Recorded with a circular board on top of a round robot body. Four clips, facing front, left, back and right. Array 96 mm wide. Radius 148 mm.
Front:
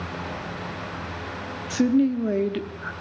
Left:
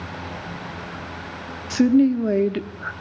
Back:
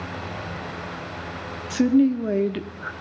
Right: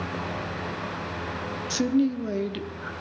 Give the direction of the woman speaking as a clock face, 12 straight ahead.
9 o'clock.